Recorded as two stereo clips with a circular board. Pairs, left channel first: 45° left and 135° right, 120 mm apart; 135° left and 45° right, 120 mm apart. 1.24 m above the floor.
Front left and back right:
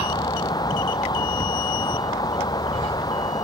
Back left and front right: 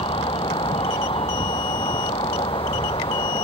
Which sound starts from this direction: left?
A vehicle, at 0.0 s.